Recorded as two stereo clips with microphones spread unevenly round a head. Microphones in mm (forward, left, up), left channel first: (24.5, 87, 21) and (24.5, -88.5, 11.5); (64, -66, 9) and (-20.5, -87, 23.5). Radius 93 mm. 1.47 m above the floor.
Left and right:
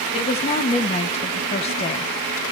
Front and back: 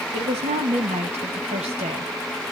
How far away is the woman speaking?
About 1.6 m.